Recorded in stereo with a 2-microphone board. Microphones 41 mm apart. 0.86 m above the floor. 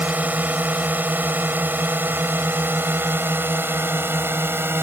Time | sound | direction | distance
0.0 | a drone | 40° right (ahead or behind) | ?